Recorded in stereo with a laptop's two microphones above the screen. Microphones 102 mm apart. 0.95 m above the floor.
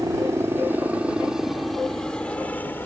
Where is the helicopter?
30° right (ahead or behind); by 2.9 s 20° left (ahead or behind).